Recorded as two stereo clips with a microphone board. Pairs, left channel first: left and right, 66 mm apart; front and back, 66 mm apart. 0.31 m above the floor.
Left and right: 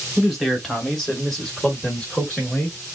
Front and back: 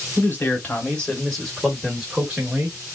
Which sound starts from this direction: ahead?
A man speaking, at 0.2 s.